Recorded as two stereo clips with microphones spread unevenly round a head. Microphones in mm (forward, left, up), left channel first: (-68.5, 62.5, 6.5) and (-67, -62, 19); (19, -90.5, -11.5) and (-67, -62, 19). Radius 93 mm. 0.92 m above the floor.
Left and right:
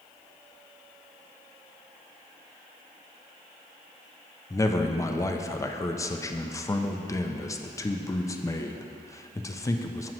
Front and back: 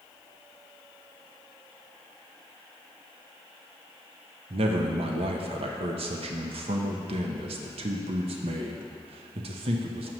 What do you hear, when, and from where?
4.5 s a man speaking: 140° left, 0.5 m